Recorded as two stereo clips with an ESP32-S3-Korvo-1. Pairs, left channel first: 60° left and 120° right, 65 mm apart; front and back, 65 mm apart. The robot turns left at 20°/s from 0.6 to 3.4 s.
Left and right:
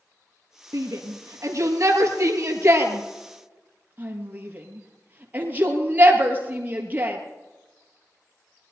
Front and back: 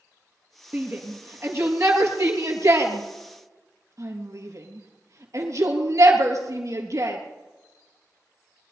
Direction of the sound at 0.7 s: 125° right.